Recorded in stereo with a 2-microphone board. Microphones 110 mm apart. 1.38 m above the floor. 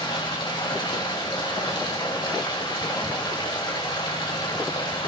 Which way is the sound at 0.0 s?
40° left (ahead or behind).